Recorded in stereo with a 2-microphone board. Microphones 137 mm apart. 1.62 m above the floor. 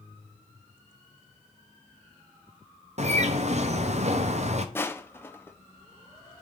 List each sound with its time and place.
3.0 s a bird: 55° right (ahead or behind), 0.8 m
4.8 s crushing: 15° left (ahead or behind), 0.7 m